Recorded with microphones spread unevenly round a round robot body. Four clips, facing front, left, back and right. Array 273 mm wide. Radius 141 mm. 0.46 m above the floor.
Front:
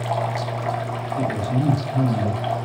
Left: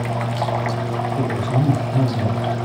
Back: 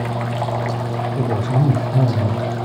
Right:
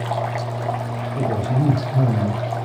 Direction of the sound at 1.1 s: 165° right.